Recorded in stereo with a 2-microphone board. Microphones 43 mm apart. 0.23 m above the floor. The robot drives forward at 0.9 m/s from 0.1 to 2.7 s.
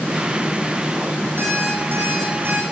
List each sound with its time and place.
1.4 s an alarm clock: 55° right (ahead or behind), 5.5 m; by 2.6 s 45° right (ahead or behind), 6 m